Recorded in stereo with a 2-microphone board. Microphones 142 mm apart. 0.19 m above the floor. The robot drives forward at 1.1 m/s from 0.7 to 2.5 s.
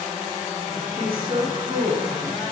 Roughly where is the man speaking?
Right.